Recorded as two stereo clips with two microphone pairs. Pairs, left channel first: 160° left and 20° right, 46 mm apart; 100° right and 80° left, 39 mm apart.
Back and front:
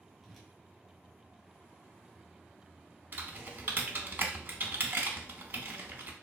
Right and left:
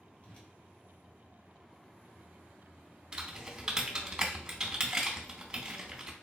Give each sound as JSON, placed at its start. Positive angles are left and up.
{"t": 0.2, "sound": "a whoosh", "azimuth_deg": -115, "distance_m": 0.7}
{"t": 3.1, "sound": "typing on a keyboard", "azimuth_deg": 10, "distance_m": 0.6}